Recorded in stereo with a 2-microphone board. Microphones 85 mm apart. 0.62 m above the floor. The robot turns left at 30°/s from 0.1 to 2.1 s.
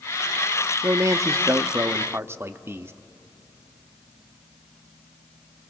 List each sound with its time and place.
0.8 s a man speaking: 90° right, 0.6 m; by 2.9 s 130° right, 0.6 m